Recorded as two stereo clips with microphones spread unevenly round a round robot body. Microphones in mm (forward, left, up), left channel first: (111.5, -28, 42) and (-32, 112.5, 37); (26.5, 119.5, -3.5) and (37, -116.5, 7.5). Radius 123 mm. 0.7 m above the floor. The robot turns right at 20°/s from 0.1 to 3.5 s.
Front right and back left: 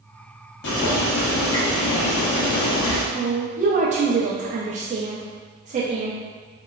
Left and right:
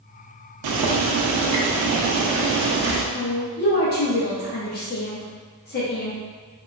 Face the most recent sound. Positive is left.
turn(degrees=105)